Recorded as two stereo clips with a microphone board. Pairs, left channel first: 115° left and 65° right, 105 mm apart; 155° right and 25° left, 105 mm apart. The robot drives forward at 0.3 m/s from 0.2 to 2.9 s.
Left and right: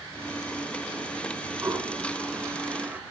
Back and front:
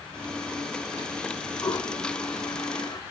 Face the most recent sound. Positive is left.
turn(degrees=-135)